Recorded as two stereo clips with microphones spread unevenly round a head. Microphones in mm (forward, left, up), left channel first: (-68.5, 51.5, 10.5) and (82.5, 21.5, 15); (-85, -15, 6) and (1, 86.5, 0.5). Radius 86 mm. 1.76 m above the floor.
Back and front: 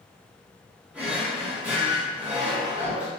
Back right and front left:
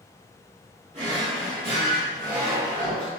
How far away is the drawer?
About 1.4 m.